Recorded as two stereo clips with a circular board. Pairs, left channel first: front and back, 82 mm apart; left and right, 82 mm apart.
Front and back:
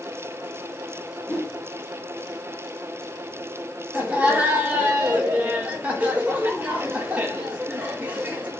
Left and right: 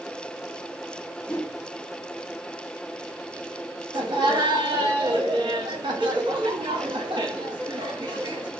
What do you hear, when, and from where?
1.3 s a whoosh: 70° left, 0.8 m
3.9 s laughter: 105° right, 1.2 m